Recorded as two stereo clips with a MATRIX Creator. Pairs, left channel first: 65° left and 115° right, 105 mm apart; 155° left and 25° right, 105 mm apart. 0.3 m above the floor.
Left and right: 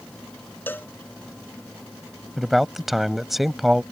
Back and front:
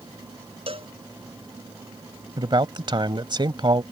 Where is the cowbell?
5° right.